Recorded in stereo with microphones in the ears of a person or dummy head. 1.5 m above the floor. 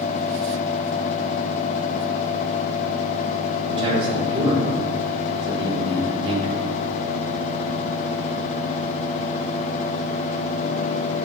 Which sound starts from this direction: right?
A man speaking, at 3.7 s.